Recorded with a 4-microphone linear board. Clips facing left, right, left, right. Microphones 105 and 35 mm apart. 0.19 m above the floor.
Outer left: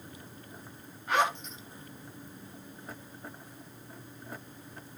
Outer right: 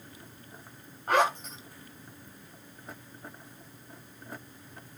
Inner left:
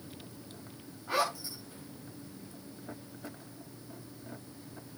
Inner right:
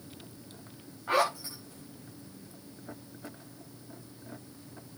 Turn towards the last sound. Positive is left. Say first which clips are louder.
# outer right 3 dB, inner right 4 dB
turn(degrees=-45)  # may be behind; listen again after turning